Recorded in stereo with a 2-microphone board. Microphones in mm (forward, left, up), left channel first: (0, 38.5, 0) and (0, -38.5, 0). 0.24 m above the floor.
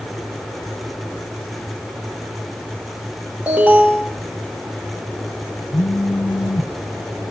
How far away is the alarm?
About 8 m.